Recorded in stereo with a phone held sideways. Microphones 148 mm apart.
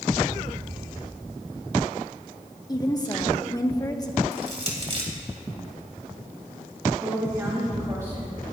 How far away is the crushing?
About 3 m.